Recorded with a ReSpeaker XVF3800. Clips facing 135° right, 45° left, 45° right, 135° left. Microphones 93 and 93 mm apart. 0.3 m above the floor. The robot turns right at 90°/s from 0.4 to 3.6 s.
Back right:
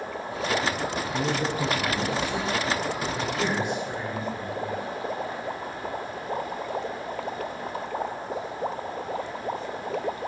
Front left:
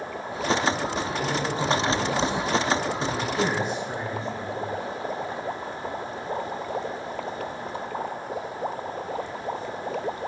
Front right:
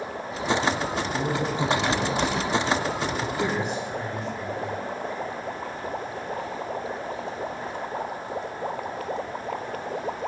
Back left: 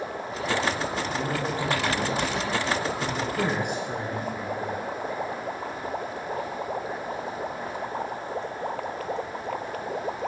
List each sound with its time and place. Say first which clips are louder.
1.1 s a man speaking: even, front right 2 dB; 100° right, 4.5 m; by 4.8 s 120° left, 4.5 m